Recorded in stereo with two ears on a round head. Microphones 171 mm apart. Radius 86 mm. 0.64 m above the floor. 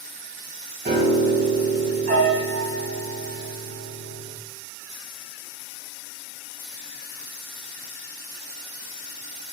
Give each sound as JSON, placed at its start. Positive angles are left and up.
{"t": 0.8, "sound": "a piano", "side_deg": -40, "distance_m": 4.0}